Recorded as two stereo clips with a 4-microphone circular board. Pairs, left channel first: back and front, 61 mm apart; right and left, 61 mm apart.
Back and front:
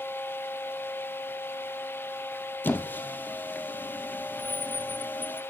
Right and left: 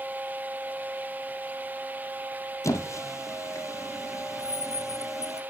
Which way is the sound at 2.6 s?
120° right.